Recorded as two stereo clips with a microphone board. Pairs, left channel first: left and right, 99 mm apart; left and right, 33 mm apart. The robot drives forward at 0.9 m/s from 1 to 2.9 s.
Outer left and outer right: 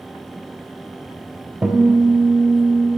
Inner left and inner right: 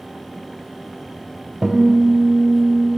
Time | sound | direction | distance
1.6 | a guitar | 5° right (ahead or behind) | 1.6 m